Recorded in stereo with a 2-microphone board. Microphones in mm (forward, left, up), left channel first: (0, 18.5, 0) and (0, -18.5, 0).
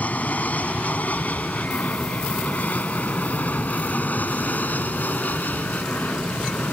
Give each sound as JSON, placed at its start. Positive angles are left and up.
{"t": 0.0, "sound": "an aircraft", "side_deg": 45}